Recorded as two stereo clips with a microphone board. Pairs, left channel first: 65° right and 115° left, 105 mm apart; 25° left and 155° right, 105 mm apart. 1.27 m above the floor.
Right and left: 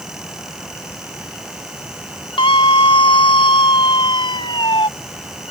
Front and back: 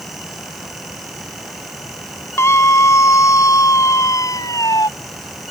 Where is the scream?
40° right; by 4.9 s 30° right.